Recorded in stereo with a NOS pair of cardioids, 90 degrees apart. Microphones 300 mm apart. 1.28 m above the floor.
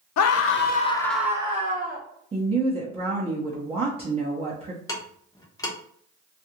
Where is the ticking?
10° left, 0.8 m.